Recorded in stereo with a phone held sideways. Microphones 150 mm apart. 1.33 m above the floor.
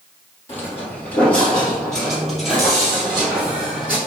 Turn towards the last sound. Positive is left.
turn(degrees=-10)  # may be behind; listen again after turning